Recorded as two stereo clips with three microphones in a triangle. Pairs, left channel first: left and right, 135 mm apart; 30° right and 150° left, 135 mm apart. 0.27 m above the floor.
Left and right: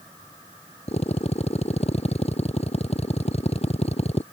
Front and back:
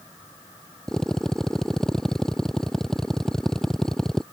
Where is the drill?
55° left.